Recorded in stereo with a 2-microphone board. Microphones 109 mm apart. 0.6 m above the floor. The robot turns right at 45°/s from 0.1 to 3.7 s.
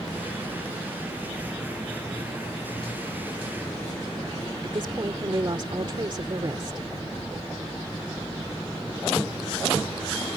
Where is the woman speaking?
45° right (ahead or behind).